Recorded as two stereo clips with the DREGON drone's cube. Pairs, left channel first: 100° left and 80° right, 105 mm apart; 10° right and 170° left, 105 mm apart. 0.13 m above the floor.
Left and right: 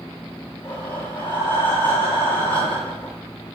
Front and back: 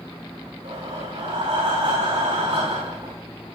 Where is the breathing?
175° left, 9.5 m.